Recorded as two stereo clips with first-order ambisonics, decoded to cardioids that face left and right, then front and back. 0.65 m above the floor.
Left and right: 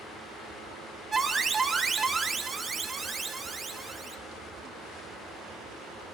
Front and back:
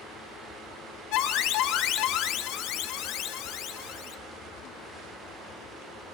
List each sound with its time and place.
1.1 s an alarm: 15° right, 0.6 m